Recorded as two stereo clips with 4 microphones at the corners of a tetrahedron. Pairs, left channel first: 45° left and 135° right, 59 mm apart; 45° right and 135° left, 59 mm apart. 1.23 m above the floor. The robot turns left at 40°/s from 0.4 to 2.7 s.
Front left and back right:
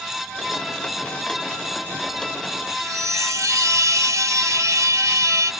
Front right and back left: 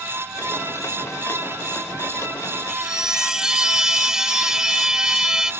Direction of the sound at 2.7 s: 145° right.